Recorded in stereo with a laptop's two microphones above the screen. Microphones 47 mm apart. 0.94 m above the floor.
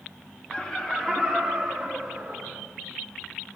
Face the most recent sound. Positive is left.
turn(degrees=-10)  # may be behind; listen again after turning